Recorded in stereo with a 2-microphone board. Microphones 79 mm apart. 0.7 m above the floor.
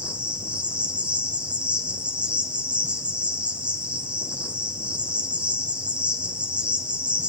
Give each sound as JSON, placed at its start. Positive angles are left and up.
{"t": 0.0, "sound": "an insect", "side_deg": -15, "distance_m": 2.5}